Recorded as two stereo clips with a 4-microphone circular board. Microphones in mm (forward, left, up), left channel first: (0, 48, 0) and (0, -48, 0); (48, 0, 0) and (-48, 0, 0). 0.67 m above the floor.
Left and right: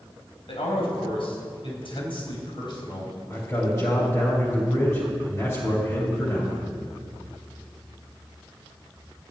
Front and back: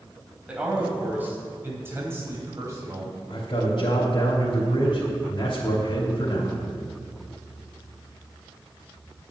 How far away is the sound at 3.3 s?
About 3 m.